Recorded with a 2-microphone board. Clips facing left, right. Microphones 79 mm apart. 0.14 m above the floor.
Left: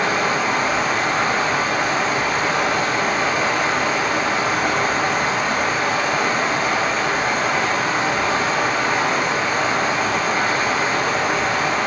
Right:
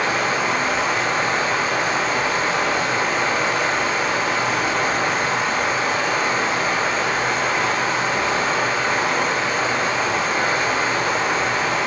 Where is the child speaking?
I don't hear a child speaking.